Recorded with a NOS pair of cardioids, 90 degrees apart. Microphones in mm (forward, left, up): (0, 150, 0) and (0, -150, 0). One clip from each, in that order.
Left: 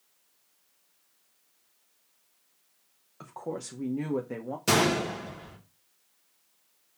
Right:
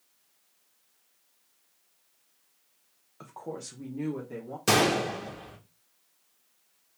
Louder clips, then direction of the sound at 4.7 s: Right 1 dB; 15° right.